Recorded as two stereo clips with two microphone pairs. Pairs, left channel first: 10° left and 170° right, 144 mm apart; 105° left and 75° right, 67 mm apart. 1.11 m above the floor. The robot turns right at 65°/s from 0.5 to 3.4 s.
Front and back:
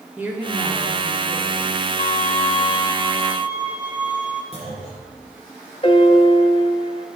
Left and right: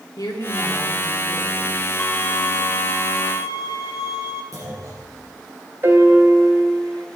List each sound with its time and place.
0.2 s a woman speaking: 110° left, 2.5 m; by 1.7 s 170° right, 2.5 m
2.0 s a violin: 15° left, 1.2 m; by 4.4 s 110° left, 1.2 m
4.5 s a clunk: 40° right, 7 m
5.8 s a piano: 35° right, 1.3 m